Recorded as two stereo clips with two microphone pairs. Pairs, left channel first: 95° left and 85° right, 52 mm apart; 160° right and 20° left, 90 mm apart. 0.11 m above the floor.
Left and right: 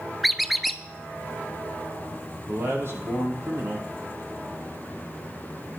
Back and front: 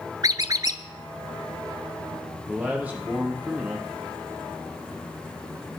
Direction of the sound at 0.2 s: 5° left.